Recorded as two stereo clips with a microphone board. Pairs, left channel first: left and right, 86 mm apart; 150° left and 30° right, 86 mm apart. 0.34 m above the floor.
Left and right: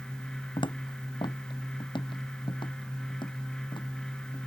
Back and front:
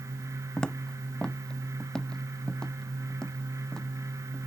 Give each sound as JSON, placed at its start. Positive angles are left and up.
{"t": 0.6, "sound": "footsteps", "azimuth_deg": 70}